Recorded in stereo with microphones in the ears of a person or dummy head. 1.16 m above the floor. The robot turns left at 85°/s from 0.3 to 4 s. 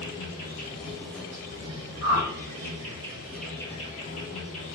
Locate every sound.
0.0 s an insect: 80° left, 1.0 m; by 4.8 s 125° left, 1.0 m
2.0 s a whoosh: 75° right (ahead or behind), 1.1 m; by 2.3 s 80° right, 1.1 m